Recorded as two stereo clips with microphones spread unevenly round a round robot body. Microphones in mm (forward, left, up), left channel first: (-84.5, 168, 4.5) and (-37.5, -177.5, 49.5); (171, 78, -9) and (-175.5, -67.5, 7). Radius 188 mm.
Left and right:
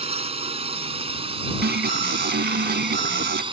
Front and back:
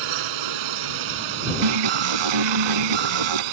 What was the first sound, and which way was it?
A drone, 155° right.